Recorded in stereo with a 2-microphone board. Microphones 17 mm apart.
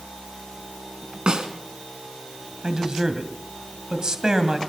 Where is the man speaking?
35° right (ahead or behind), 2 m.